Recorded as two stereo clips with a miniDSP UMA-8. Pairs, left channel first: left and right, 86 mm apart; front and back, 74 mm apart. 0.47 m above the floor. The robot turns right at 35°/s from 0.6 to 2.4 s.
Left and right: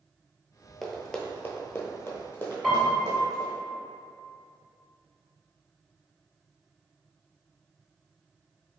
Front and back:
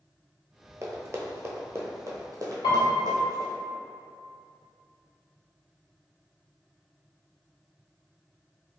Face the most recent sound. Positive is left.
turn(degrees=5)